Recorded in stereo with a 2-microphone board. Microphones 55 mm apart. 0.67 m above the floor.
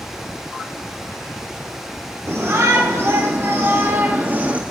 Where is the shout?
60° right (ahead or behind), 2.5 m; by 4.6 s 30° right (ahead or behind), 1.2 m.